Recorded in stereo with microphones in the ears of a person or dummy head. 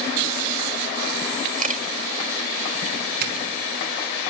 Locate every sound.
1.6 s a camera shutter: 40° right (ahead or behind), 2.0 m
3.2 s a doorbell: 55° right (ahead or behind), 4.5 m